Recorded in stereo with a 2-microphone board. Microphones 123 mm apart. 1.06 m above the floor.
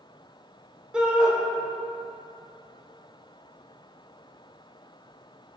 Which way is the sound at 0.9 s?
10° right (ahead or behind).